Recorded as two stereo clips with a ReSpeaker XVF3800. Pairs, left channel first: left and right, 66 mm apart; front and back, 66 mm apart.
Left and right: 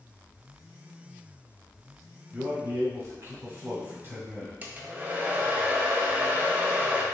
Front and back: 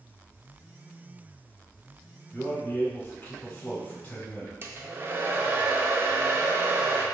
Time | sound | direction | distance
2.3 | a man speaking | 55° right | 1.4 m
4.6 | a hair dryer | 140° right | 0.5 m